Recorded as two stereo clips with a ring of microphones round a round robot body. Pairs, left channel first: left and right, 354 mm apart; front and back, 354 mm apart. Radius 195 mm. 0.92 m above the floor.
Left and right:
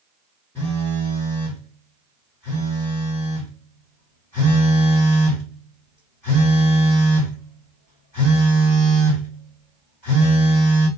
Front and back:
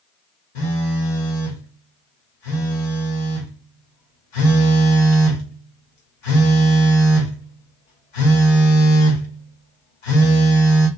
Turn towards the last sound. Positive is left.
turn(degrees=5)